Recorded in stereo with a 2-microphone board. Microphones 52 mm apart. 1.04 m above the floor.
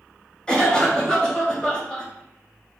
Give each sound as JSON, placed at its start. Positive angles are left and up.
{"t": 0.5, "sound": "a cough", "side_deg": 15, "distance_m": 1.7}